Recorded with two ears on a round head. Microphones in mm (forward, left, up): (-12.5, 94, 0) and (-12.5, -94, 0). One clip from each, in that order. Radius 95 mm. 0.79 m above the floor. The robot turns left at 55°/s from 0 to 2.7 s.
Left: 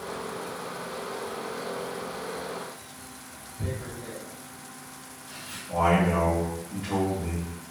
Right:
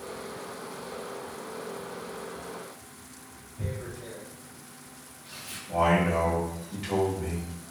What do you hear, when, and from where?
3.6 s tearing paper: 75° right (ahead or behind), 1.4 m
5.7 s a man speaking: 65° right (ahead or behind), 1.6 m